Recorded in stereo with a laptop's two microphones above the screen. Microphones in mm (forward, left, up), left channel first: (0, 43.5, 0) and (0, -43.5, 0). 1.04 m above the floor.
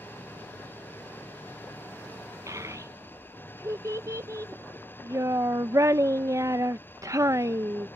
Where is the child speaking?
40° right (ahead or behind).